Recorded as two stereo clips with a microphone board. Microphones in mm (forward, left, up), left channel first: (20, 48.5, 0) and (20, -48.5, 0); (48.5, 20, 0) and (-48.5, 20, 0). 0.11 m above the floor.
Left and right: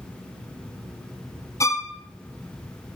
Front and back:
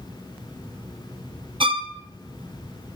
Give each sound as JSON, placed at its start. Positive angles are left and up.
{"t": 1.6, "sound": "a violin", "azimuth_deg": 145, "distance_m": 0.7}